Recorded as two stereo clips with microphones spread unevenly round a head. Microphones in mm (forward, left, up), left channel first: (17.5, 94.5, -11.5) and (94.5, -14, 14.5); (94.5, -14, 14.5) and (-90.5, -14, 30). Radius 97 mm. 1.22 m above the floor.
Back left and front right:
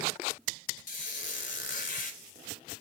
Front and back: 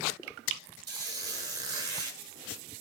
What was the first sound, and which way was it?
A squeak, 115° left.